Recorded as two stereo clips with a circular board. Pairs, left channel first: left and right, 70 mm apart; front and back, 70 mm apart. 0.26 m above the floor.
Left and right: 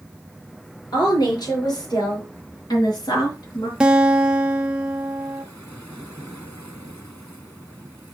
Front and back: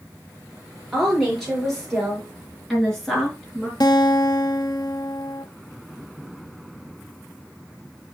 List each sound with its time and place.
0.9 s a woman speaking: 85° left, 5.5 m
3.8 s a guitar: 10° right, 0.8 m